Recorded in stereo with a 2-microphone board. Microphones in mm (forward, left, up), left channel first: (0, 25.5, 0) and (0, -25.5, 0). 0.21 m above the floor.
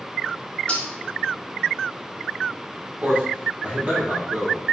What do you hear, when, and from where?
0.7 s cutlery clinking: 25° left (ahead or behind), 0.7 m
3.0 s a man speaking: 30° right (ahead or behind), 1.2 m